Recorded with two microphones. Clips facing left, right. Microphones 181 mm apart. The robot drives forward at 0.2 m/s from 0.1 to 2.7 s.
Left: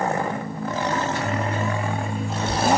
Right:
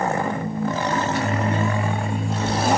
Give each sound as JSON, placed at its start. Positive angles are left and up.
{"t": 0.9, "sound": "a microwave", "side_deg": -70, "distance_m": 1.0}